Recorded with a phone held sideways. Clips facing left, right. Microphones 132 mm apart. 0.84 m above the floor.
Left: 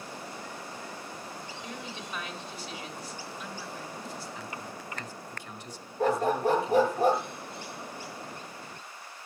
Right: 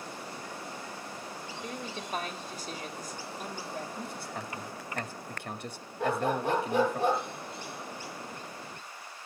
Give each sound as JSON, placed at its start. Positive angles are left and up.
{"t": 1.6, "sound": "a woman speaking", "side_deg": -45, "distance_m": 3.0}
{"t": 4.0, "sound": "a man speaking", "side_deg": -60, "distance_m": 2.0}
{"t": 6.0, "sound": "a dog barking", "side_deg": 40, "distance_m": 4.5}